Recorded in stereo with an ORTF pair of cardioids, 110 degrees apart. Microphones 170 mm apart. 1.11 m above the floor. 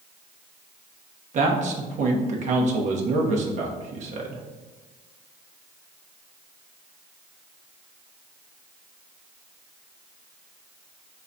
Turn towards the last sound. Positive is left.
turn(degrees=-50)